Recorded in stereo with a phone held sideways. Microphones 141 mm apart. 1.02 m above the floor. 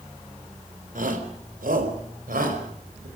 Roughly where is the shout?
Right.